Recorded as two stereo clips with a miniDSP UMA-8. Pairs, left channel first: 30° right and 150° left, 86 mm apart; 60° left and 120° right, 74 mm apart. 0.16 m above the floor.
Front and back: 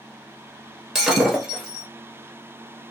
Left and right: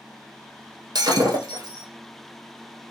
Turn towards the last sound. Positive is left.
turn(degrees=-125)